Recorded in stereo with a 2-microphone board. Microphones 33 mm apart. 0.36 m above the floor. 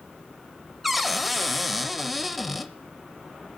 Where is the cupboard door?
Centre (ahead or behind), 0.6 m.